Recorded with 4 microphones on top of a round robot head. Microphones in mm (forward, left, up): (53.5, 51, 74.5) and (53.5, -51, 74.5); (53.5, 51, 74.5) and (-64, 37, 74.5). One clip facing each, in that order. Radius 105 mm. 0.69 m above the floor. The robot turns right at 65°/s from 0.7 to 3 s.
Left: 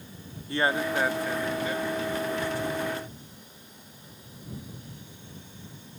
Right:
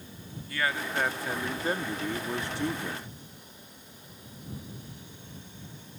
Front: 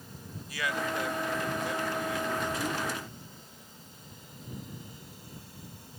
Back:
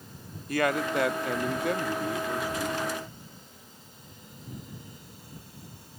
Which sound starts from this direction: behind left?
A man speaking, at 0.5 s.